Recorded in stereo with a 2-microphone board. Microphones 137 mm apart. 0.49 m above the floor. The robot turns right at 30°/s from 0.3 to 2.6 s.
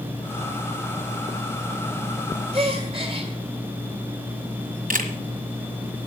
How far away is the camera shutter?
About 1.4 m.